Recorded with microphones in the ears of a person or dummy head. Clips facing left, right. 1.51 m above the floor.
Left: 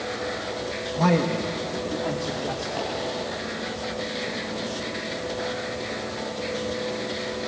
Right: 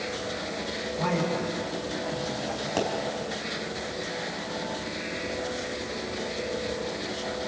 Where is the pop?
60° right (ahead or behind), 3.5 m.